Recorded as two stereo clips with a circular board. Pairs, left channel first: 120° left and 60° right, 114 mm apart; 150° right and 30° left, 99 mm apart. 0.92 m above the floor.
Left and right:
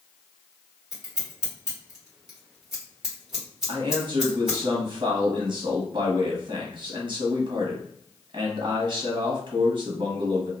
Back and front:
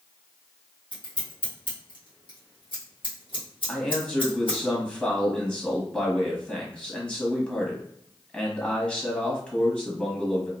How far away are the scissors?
About 1.6 m.